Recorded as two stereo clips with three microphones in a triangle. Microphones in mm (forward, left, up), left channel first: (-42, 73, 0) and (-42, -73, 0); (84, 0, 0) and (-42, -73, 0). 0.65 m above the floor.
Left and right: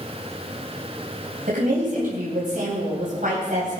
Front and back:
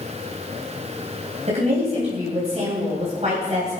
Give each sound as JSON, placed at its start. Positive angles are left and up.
{"t": 1.5, "sound": "a woman speaking", "azimuth_deg": -110, "distance_m": 3.5}